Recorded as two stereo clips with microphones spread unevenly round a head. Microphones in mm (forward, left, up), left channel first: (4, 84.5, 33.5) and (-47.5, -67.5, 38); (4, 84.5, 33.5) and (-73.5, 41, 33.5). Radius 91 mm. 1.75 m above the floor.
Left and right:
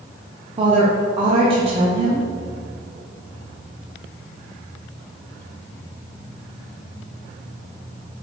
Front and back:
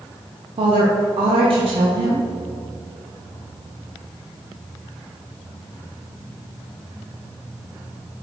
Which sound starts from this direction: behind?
A woman speaking, at 0.6 s.